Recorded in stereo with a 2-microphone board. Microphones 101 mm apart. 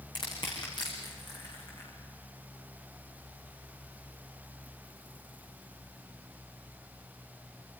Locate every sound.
0.1 s crushing: 45° left (ahead or behind), 7.5 m